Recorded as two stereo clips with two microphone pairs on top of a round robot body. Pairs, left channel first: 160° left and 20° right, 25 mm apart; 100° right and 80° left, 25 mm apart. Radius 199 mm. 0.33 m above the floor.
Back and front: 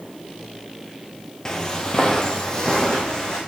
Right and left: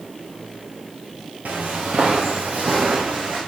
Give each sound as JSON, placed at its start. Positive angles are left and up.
{"t": 1.4, "sound": "footsteps", "azimuth_deg": 90, "distance_m": 0.8}